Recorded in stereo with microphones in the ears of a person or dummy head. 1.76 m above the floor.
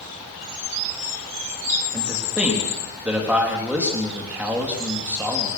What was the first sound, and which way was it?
A man speaking, 10° right (ahead or behind).